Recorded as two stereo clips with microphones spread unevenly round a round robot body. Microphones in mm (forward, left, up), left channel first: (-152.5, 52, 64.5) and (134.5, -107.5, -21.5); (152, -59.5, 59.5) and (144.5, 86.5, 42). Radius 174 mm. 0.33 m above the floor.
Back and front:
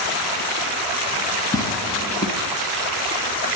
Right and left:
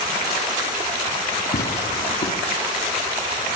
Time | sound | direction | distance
1.5 | tearing paper | 125° right | 1.8 m